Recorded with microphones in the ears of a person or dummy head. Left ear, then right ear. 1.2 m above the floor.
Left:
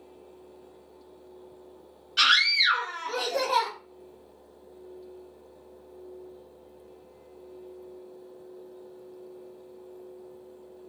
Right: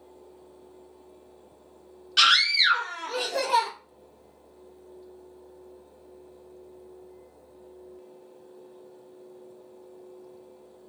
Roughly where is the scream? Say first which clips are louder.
Right 1 dB; right.